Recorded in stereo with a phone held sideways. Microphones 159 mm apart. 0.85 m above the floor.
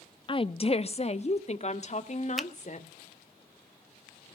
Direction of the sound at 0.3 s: 30° left (ahead or behind).